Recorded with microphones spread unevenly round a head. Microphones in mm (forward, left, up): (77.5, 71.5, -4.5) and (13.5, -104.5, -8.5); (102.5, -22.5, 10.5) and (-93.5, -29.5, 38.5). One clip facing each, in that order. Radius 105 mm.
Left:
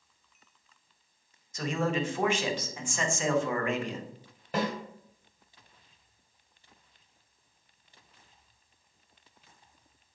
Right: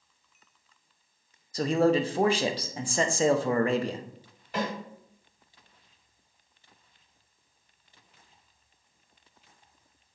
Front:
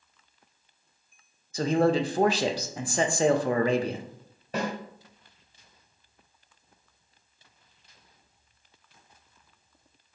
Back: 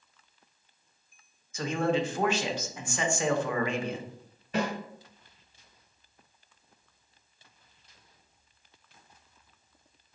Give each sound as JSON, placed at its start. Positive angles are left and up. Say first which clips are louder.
{"t": 1.5, "sound": "a man speaking", "louder": "right 7 dB, front 5 dB", "azimuth_deg": -50, "distance_m": 0.6}
{"t": 4.5, "sound": "a snare drum", "louder": "left 1 dB, back 1 dB", "azimuth_deg": 55, "distance_m": 1.9}